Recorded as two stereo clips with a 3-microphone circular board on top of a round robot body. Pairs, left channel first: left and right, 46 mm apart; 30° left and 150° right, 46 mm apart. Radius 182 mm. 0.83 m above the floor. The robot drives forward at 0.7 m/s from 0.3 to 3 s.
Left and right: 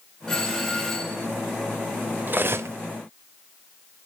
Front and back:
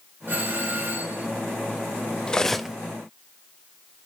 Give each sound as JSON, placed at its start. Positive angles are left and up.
{"t": 0.3, "sound": "a doorbell", "azimuth_deg": 170, "distance_m": 3.5}
{"t": 2.3, "sound": "cutlery clinking", "azimuth_deg": -45, "distance_m": 0.7}